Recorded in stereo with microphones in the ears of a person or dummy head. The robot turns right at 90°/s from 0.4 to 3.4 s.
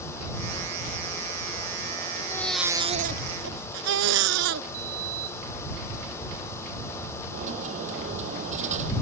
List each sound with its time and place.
2.2 s a baby crying: 150° left; by 4.6 s 100° right
4.7 s a sliding door: 55° right (ahead or behind)
7.3 s a dropped coin: 45° right (ahead or behind)